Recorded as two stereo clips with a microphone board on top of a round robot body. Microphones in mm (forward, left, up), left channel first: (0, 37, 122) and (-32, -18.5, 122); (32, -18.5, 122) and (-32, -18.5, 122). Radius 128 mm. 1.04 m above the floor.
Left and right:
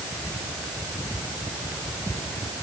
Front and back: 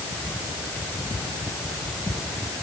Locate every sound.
Only background noise.